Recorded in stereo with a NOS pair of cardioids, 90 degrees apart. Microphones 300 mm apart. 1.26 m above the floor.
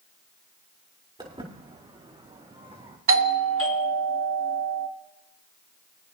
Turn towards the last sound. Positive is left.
turn(degrees=-40)